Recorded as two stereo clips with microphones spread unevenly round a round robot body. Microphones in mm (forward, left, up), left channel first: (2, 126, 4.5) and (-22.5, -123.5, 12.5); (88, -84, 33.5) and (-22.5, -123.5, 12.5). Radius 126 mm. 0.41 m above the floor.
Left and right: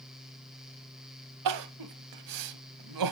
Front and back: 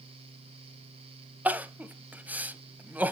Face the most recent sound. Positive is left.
turn(degrees=-85)